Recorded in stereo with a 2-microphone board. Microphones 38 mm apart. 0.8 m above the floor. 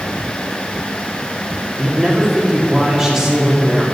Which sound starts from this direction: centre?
A man speaking, at 1.8 s.